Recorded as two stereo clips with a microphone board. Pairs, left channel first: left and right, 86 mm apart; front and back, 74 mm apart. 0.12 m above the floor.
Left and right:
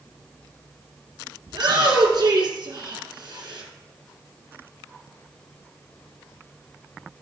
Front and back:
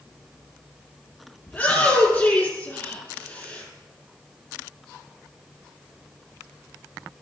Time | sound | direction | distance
1.5 | a shout | 70° right | 3 m